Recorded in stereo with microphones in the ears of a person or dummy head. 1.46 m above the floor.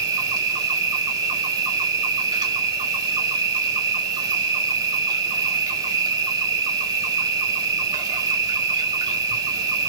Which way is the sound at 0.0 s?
25° right (ahead or behind).